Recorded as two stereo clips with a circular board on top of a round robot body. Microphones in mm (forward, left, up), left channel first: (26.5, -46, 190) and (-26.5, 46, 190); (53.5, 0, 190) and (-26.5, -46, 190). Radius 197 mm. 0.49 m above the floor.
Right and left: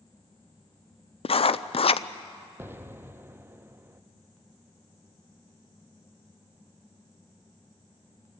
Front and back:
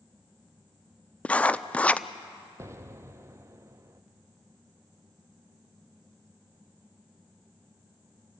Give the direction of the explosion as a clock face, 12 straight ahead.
6 o'clock.